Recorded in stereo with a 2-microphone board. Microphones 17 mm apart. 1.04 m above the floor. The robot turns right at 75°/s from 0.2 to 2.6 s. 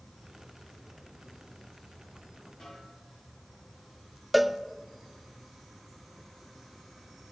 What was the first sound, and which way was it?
A snare drum, 60° left (ahead or behind).